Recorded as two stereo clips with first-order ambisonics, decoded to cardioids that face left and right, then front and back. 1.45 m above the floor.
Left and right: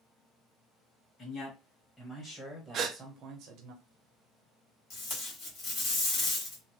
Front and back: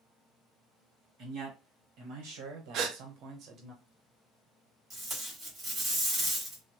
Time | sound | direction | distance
1.2 | a man speaking | 155° left | 1.9 m
2.7 | a gasp | 145° right | 0.5 m
4.9 | tape being pulled | 115° left | 1.7 m